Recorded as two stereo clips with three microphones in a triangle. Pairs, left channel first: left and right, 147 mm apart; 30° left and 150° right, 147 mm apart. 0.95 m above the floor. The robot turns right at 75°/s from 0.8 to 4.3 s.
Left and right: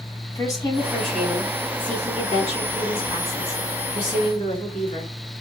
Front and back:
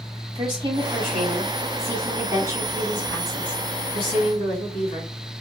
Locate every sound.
0.3 s a woman speaking: 155° left, 3 m; by 5.1 s 60° left, 3 m